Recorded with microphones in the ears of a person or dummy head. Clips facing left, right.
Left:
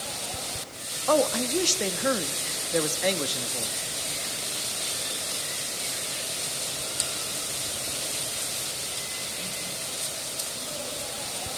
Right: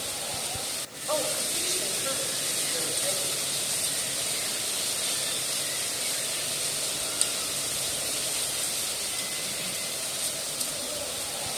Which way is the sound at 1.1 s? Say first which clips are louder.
Left 8 dB; 70° left (ahead or behind).